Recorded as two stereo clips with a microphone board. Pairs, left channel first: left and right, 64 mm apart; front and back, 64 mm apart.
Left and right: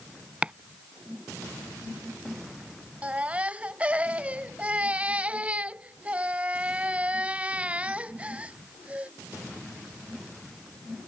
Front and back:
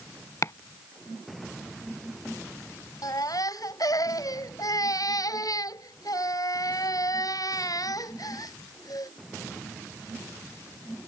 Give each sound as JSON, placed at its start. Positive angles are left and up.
{"t": 0.4, "sound": "chopping", "azimuth_deg": -20}
{"t": 3.0, "sound": "a baby crying", "azimuth_deg": -20}